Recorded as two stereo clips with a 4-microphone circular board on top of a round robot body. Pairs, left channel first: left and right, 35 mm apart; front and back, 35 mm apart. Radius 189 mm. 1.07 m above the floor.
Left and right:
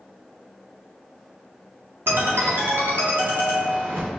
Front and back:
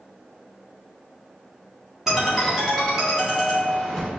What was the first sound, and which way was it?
A ringtone, 95° right.